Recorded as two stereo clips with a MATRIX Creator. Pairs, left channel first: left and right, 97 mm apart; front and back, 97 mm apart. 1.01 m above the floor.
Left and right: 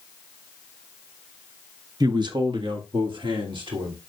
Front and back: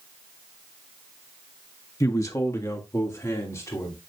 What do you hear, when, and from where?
2.0 s a man speaking: 50° right, 0.8 m; by 4.0 s 60° right, 3 m